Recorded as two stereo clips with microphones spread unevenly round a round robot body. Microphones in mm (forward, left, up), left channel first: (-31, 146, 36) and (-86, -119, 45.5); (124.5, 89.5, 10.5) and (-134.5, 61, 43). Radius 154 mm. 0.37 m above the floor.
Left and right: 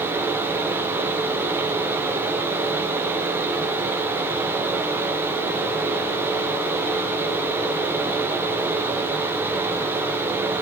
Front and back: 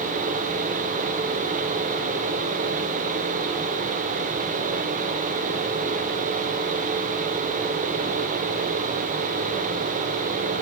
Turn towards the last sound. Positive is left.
No sound to turn to.